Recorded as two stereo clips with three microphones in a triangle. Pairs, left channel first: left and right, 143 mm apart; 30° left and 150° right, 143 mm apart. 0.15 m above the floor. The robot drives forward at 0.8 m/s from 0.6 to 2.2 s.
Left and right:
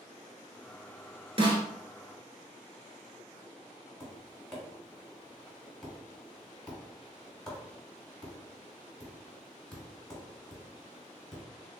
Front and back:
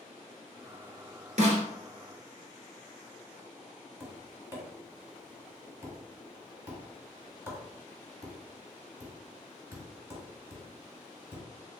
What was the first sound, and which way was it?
A snare drum, 135° right.